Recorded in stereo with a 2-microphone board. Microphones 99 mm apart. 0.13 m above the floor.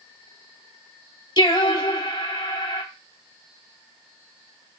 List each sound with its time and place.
1.4 s singing: 50° left (ahead or behind), 1.0 m